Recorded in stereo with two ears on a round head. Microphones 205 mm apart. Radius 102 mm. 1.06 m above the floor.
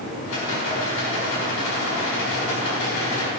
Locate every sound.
0.2 s a rattle: 65° left (ahead or behind), 4 m